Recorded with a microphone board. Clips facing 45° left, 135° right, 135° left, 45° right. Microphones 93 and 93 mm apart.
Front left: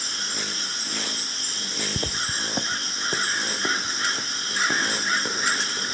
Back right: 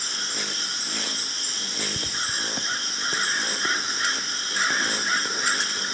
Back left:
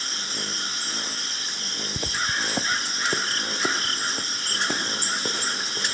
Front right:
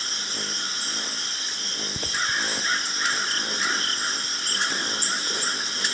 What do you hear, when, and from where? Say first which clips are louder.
2.0 s footsteps: front left 2 dB, even; 50° left, 0.6 m; by 6.0 s 120° left, 4.5 m